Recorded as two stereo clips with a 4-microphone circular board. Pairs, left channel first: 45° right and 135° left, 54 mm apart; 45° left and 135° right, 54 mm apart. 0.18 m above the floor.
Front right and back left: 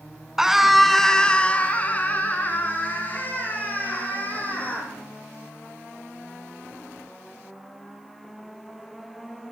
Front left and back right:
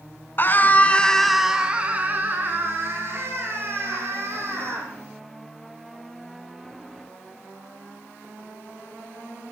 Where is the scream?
60° left, 1.5 m; by 4.9 s 100° right, 5 m.